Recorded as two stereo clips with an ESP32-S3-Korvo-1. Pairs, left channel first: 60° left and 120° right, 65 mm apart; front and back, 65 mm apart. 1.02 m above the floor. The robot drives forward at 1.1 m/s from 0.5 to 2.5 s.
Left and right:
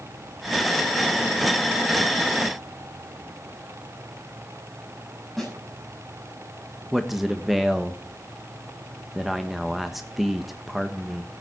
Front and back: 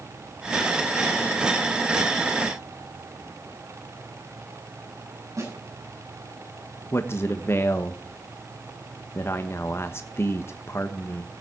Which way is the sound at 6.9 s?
35° right.